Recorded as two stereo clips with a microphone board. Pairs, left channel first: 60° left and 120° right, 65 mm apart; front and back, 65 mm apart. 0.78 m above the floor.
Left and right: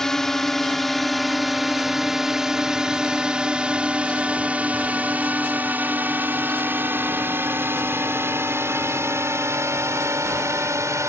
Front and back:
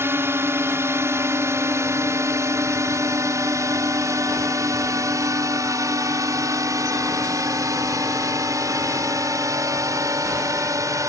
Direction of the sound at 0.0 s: 140° left.